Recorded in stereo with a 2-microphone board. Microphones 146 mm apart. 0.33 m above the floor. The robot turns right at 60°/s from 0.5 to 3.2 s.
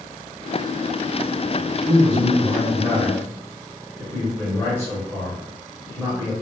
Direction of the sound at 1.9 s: 10° right (ahead or behind).